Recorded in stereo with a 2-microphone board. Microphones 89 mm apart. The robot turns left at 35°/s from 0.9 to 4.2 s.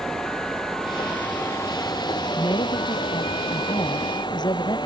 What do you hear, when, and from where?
0.0 s running water: 175° left; by 4.9 s 60° left
2.4 s a woman speaking: 125° left; by 4.8 s 60° left